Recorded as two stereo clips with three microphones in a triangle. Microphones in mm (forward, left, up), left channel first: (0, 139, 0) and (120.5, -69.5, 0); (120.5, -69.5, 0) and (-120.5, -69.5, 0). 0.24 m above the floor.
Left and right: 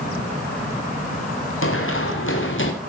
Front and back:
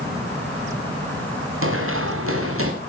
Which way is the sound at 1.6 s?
150° left.